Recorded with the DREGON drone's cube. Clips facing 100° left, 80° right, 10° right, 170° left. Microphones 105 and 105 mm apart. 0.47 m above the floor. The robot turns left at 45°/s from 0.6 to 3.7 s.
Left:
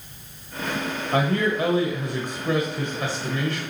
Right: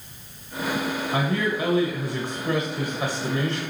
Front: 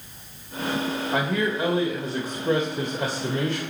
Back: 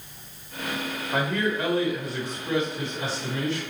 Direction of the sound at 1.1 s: 80° left.